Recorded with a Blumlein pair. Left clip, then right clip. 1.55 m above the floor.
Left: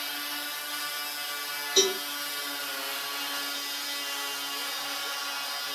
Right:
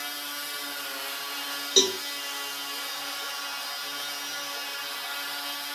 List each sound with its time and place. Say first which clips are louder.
1.8 s a cowbell: right 2 dB; 60° right, 2.5 m